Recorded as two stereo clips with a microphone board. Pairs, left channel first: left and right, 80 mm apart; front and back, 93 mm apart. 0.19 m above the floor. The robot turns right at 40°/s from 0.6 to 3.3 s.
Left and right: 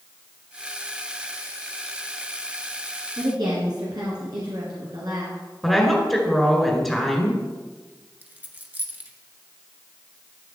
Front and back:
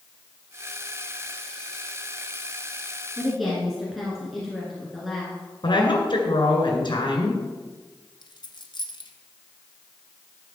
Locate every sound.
3.2 s a woman speaking: 95° right, 2.5 m; by 5.4 s 90° right, 2.5 m
5.6 s a woman speaking: straight ahead, 2.0 m
8.2 s a dropped coin: 25° right, 1.3 m